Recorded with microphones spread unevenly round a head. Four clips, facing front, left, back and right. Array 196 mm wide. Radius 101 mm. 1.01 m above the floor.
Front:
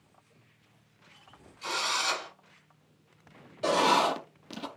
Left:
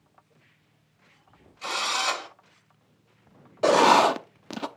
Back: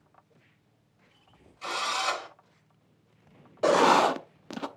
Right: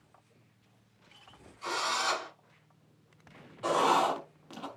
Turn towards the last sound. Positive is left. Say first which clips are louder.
# left 8 dB, back 4 dB
turn(degrees=125)